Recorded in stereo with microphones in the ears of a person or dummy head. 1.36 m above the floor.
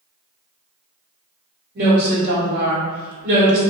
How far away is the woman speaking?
About 1.5 m.